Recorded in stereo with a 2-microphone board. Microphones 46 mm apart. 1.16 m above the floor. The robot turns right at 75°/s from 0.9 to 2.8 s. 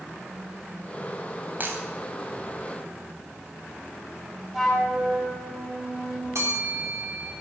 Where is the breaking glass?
45° right (ahead or behind), 3.5 m; by 1.8 s 60° right (ahead or behind), 3.5 m.